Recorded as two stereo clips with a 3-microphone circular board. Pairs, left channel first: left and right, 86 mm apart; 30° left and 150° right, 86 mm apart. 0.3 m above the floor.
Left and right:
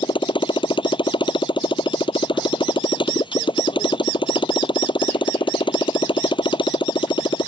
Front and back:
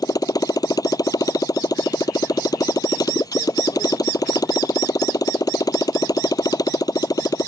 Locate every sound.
0.0 s a motorcycle: 70° left